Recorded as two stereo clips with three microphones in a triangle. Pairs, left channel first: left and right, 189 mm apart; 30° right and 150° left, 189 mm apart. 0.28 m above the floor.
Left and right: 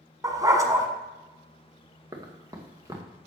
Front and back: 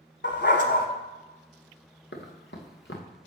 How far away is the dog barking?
About 1.2 m.